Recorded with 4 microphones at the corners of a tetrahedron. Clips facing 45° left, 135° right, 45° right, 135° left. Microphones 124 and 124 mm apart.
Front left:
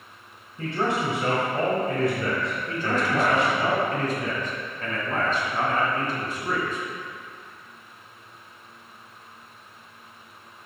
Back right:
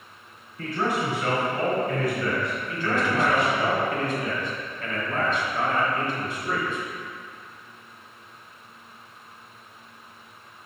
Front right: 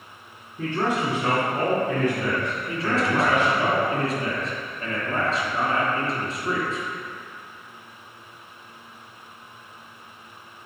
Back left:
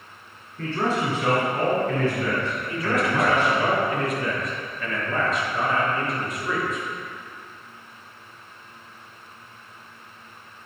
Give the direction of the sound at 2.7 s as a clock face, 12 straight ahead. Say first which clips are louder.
Even, front right 1 dB; 12 o'clock.